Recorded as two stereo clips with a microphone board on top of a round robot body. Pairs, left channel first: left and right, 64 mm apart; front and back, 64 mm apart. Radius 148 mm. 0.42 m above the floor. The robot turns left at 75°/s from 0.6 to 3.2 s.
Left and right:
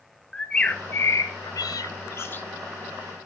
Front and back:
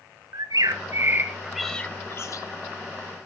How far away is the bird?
About 1.1 m.